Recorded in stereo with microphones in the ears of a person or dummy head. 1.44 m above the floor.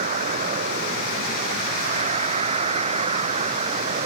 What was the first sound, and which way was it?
A vehicle, 45° right (ahead or behind).